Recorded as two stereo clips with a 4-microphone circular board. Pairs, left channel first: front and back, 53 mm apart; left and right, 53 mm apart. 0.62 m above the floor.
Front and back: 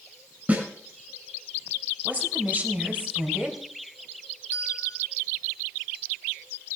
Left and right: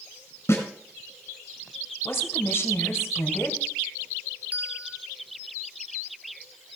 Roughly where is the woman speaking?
Behind left.